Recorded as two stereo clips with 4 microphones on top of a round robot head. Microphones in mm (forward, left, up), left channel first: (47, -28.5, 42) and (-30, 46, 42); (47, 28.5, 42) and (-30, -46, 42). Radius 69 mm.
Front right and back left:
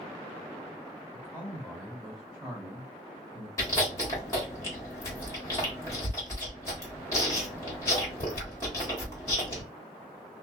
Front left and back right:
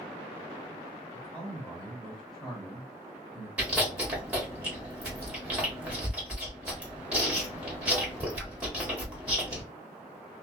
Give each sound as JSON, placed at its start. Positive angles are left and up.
{"t": 1.1, "sound": "a man speaking", "azimuth_deg": -10, "distance_m": 1.4}
{"t": 3.6, "sound": "chewing", "azimuth_deg": -70, "distance_m": 1.4}